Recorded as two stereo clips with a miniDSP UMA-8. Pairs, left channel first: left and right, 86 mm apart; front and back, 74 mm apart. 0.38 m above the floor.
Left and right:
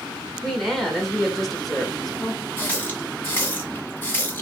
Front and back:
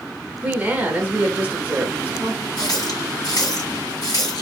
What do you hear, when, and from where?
0.4 s a woman speaking: 175° left, 0.8 m
2.6 s a running tap: 25° left, 1.8 m